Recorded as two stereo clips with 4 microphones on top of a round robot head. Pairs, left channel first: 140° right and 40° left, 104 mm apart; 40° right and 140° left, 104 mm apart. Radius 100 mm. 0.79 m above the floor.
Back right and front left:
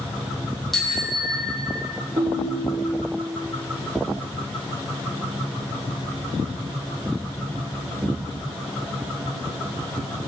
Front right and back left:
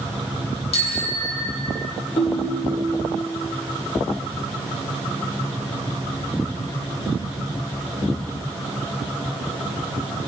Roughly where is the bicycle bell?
Ahead right.